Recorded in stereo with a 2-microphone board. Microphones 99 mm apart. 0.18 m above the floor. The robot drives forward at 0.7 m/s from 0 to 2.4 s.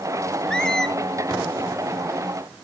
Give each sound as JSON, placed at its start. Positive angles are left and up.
{"t": 0.5, "sound": "a squeak", "side_deg": 10, "distance_m": 0.5}